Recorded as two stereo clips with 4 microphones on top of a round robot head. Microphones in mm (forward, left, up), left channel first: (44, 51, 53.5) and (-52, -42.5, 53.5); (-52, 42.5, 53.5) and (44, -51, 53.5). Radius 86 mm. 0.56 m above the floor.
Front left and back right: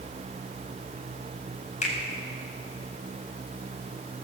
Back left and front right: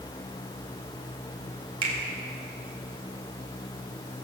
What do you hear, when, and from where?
1.8 s a finger snap: 10° left, 3 m